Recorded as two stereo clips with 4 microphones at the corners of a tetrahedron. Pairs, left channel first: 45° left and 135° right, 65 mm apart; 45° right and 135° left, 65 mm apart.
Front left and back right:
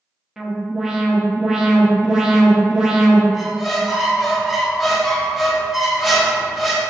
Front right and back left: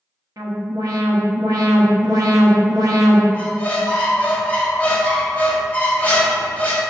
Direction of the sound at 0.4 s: 145° left.